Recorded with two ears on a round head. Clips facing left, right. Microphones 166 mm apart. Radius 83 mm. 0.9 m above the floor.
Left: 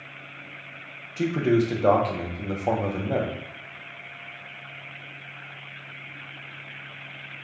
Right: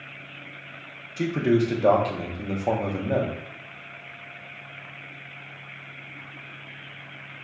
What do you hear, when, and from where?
1.2 s a man speaking: 5° right (ahead or behind), 0.6 m